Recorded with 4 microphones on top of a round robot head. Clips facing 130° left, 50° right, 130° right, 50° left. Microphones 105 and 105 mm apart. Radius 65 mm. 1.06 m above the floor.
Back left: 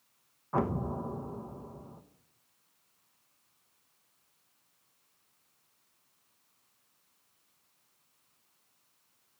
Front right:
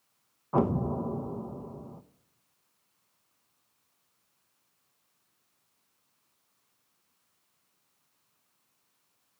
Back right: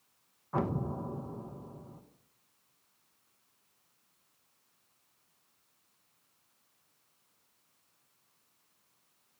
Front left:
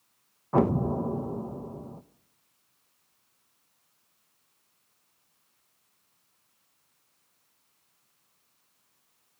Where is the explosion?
15° left, 1.2 m.